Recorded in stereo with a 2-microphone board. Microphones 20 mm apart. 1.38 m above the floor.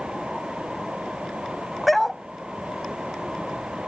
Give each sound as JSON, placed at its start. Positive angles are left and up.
{"t": 1.9, "sound": "a dog barking", "side_deg": 5}